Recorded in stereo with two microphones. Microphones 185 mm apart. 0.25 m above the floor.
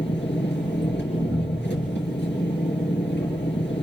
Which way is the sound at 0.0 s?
70° left (ahead or behind).